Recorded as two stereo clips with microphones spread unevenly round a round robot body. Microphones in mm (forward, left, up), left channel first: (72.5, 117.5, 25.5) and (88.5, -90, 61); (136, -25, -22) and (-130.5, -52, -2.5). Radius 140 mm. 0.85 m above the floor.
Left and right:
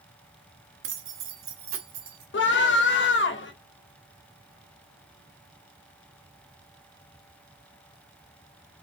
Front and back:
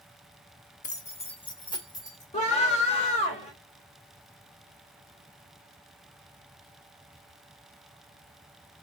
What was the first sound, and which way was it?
Keys jangling, 55° right.